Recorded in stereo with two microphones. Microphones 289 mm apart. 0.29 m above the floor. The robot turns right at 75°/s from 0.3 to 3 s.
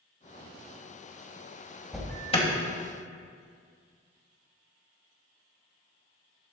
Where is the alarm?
Centre (ahead or behind), 1.9 m; by 2.5 s 25° left (ahead or behind), 1.9 m.